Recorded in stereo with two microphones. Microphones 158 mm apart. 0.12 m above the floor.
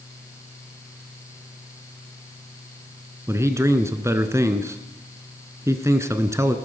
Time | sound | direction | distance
3.3 | a man speaking | 20° right (ahead or behind) | 1.1 m